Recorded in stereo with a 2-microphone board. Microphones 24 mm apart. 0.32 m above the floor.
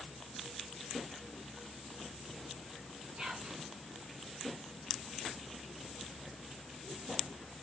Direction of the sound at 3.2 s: 45° right (ahead or behind).